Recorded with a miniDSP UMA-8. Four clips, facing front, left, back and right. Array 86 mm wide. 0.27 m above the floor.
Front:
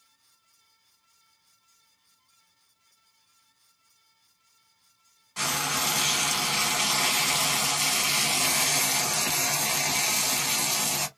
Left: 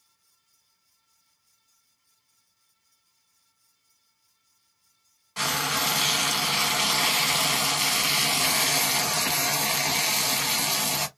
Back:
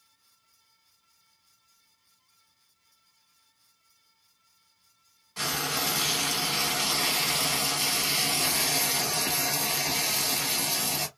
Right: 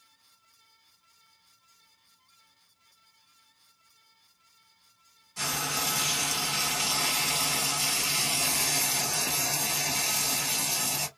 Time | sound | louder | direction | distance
5.4 | frying | left 5 dB, front 2 dB | 75° left | 0.9 m